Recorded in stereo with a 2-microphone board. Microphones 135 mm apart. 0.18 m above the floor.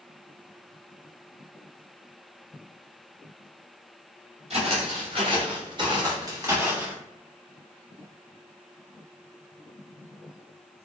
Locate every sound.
4.5 s footsteps: 50° right (ahead or behind), 1.8 m; by 7.0 s 10° right (ahead or behind), 0.9 m